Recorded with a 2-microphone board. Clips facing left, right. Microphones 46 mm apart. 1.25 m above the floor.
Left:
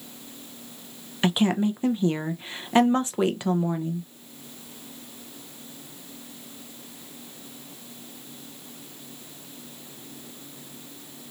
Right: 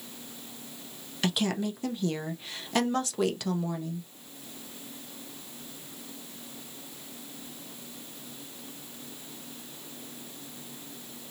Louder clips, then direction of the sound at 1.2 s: Left 6 dB; 25° left (ahead or behind).